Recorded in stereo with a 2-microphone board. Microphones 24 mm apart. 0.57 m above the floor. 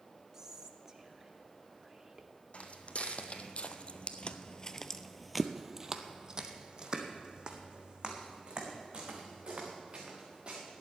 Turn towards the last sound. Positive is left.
turn(degrees=-40)  # may be behind; listen again after turning